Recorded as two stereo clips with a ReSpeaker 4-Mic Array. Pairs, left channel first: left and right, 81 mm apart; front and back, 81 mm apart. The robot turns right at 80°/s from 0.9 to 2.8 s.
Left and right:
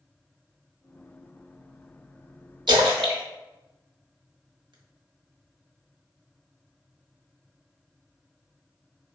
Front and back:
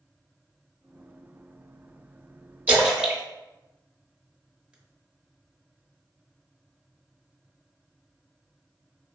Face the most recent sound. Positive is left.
turn(degrees=-105)